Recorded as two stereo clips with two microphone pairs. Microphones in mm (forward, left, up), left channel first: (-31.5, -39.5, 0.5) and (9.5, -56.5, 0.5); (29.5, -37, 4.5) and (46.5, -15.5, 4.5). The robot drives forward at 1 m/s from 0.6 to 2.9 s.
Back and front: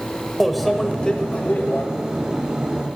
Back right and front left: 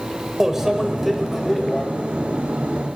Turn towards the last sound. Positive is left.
turn(degrees=170)